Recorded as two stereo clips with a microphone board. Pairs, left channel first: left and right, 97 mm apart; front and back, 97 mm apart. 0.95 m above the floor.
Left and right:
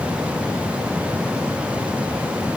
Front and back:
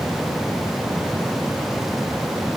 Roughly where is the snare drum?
I don't hear a snare drum.